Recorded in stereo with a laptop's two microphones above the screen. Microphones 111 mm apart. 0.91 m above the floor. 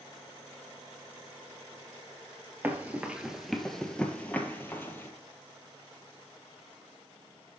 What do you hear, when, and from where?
2.6 s running footsteps: 15° right (ahead or behind), 0.9 m; by 5.1 s 20° left (ahead or behind), 1.3 m